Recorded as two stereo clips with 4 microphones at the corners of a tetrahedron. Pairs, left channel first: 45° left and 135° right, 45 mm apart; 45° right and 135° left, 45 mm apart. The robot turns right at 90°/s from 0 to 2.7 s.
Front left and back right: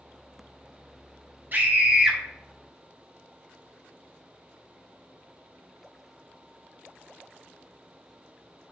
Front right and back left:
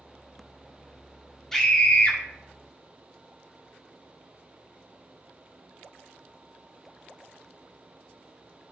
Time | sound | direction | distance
1.5 | a scream | 120° right | 2 m